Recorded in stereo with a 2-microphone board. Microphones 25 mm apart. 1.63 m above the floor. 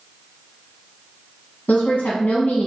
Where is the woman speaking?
70° left (ahead or behind), 1.1 m.